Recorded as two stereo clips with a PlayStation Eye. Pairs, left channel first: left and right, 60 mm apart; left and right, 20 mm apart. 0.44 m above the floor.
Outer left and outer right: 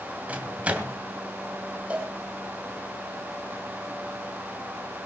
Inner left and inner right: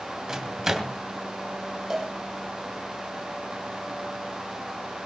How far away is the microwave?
About 2.5 m.